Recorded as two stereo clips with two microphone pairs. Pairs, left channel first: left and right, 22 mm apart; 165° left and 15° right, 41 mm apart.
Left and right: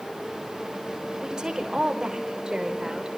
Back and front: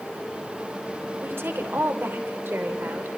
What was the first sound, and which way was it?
A woman speaking, 35° right.